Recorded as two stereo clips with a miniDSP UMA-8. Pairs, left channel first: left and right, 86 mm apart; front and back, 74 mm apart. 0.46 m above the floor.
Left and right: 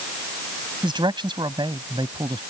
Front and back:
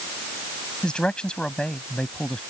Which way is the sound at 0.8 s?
75° right.